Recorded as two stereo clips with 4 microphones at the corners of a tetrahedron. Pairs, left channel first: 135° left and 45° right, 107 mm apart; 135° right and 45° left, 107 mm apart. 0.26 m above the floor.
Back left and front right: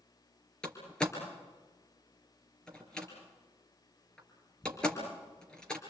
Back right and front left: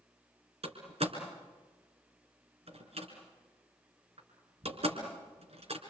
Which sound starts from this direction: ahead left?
A door slam, at 0.6 s.